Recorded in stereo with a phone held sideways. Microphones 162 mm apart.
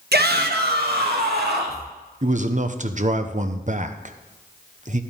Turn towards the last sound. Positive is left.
turn(degrees=-50)  # may be behind; listen again after turning